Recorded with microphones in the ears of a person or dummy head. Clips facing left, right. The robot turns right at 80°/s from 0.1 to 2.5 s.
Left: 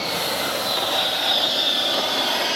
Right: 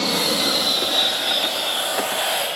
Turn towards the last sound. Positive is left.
turn(degrees=70)  # may be behind; listen again after turning